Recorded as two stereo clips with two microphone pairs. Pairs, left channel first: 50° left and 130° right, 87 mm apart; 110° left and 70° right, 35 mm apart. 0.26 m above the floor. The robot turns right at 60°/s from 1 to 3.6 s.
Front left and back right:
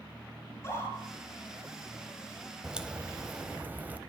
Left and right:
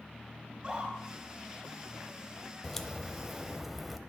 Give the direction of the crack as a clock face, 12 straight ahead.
7 o'clock.